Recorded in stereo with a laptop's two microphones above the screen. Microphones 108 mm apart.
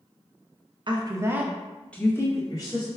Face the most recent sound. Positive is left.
turn(degrees=35)  # may be behind; listen again after turning